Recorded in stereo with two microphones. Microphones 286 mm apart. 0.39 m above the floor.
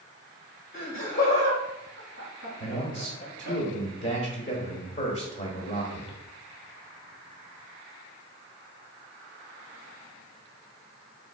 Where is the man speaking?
40° left (ahead or behind), 1.3 m.